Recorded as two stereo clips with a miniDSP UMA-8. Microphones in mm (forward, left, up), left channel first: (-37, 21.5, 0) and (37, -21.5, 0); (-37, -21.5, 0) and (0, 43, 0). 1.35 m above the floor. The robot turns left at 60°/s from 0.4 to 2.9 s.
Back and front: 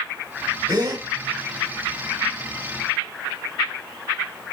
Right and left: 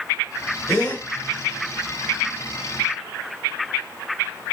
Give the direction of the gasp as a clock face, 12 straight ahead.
1 o'clock.